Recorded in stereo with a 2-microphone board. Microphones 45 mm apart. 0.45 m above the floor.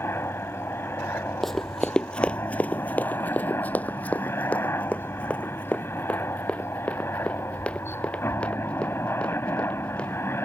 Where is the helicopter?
65° left (ahead or behind).